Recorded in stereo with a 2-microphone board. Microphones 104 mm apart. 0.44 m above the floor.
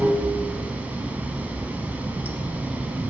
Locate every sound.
0.0 s running water: 15° right (ahead or behind), 0.8 m